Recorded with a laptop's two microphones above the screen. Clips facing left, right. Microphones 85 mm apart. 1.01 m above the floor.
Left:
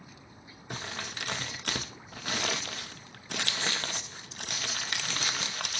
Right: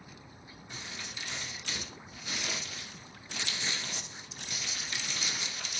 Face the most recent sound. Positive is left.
turn(degrees=65)  # may be behind; listen again after turning